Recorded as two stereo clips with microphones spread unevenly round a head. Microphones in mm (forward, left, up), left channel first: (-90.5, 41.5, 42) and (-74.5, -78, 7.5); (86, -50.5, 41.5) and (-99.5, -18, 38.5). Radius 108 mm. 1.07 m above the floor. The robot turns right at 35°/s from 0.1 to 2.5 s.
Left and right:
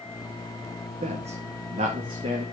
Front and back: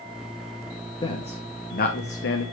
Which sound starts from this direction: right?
A man speaking, at 1.0 s.